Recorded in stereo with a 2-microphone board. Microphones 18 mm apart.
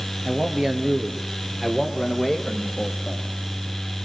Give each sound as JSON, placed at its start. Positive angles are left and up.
{"t": 0.2, "sound": "a man speaking", "side_deg": -40, "distance_m": 2.5}